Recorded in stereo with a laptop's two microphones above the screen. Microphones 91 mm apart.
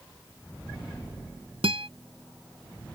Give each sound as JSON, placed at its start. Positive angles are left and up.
{"t": 1.6, "sound": "a guitar", "side_deg": -85}